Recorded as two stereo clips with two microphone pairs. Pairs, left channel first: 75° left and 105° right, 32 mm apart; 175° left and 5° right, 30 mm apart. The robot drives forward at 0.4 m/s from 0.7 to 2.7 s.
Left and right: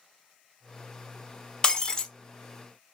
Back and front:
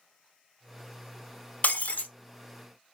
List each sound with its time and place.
1.6 s breaking glass: 150° left, 0.7 m; by 2.1 s 155° left, 0.9 m